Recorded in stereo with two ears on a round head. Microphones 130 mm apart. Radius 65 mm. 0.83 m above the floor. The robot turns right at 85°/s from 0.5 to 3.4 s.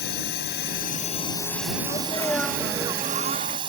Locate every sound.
0.0 s a drone: 80° left; by 3.7 s 35° right
1.8 s a sneeze: 125° left; by 3.6 s 105° right